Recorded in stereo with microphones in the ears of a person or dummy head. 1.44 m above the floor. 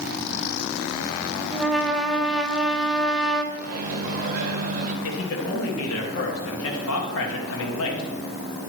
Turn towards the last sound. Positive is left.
turn(degrees=80)